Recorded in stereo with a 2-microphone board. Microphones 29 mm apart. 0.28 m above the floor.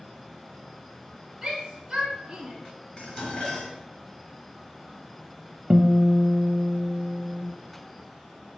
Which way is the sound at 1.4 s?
10° right (ahead or behind).